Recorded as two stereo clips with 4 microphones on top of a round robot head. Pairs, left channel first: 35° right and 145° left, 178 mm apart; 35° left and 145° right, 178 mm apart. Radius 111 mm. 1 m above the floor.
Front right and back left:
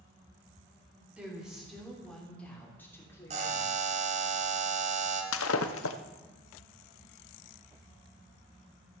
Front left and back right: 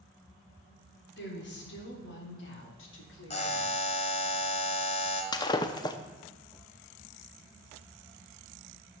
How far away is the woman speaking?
About 3.5 m.